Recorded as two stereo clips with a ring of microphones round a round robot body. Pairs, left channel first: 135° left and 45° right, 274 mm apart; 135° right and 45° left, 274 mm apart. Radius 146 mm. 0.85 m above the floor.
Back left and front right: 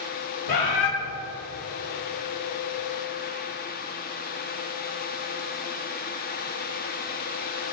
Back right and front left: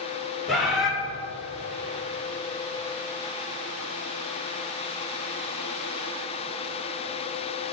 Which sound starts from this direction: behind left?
A bird, at 0.5 s.